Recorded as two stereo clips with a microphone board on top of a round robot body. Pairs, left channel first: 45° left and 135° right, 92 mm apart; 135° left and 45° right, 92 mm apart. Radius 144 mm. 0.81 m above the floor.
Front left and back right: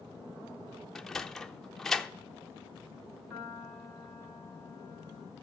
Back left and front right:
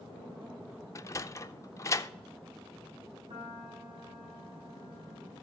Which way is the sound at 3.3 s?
50° right.